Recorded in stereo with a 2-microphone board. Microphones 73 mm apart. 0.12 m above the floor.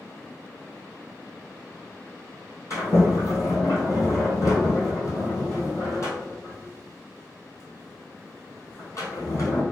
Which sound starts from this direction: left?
A sliding door, at 2.7 s.